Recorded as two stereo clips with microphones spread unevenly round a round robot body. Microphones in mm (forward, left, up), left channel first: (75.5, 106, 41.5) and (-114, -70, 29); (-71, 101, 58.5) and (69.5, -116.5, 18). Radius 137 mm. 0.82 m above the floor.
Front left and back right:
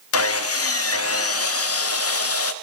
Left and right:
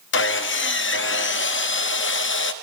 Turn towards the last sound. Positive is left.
turn(degrees=75)